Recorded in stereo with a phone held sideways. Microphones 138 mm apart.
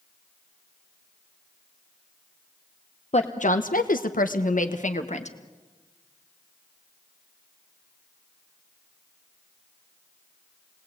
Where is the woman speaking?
50° left (ahead or behind), 1.1 m; by 5.4 s 55° left (ahead or behind), 1.9 m.